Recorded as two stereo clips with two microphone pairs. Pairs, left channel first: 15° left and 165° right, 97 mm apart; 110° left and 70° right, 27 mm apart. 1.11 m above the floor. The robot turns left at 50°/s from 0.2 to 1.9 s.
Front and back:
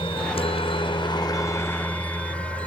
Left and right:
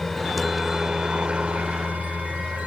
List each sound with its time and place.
0.0 s a helicopter: 25° left; by 2.7 s 60° right